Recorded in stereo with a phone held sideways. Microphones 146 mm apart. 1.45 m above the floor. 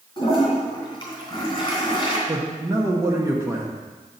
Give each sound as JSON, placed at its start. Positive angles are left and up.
{"t": 0.2, "sound": "a toilet flushing", "side_deg": 30, "distance_m": 2.5}
{"t": 2.3, "sound": "a man speaking", "side_deg": -20, "distance_m": 0.9}